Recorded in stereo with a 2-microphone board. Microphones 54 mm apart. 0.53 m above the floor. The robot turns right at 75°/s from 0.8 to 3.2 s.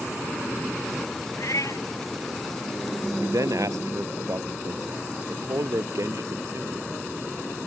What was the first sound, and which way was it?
A cat meowing, 65° left.